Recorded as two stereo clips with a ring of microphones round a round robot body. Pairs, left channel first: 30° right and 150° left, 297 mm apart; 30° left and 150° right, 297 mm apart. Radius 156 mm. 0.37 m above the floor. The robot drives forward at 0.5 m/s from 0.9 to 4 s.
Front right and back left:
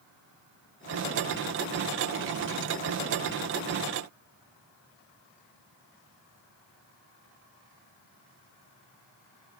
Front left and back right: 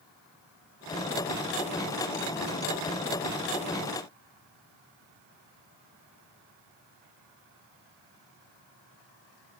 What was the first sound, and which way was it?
Only background noise.